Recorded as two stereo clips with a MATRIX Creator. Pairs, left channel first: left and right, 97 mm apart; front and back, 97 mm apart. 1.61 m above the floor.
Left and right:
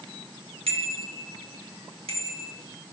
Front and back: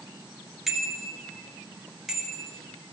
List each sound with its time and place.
0.7 s a bicycle bell: 95° right, 3 m